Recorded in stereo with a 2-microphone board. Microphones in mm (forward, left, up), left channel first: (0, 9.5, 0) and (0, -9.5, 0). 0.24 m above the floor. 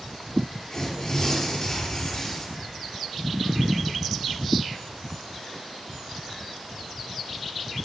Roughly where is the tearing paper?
Left.